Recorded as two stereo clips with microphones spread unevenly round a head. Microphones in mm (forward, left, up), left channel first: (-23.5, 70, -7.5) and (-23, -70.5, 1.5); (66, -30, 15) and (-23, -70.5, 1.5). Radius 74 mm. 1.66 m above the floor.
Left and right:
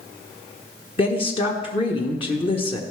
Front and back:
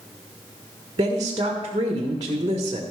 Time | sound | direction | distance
1.0 | a woman speaking | 140° left | 1.3 m